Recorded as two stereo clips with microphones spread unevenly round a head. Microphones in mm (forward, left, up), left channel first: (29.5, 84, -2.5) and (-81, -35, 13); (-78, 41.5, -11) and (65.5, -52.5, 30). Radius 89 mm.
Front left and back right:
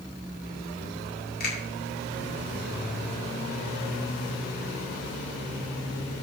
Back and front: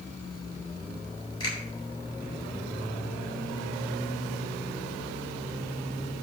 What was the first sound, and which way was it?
A finger snap, 80° left.